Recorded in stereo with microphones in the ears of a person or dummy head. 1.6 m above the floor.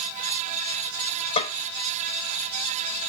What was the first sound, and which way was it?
A snare drum, 35° left (ahead or behind).